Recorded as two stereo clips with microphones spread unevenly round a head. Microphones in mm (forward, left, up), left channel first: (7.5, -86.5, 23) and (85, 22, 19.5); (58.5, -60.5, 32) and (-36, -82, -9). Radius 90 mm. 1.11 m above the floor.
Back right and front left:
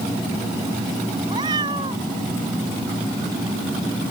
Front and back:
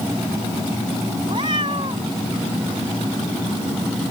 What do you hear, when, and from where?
1.3 s a cat meowing: 125° left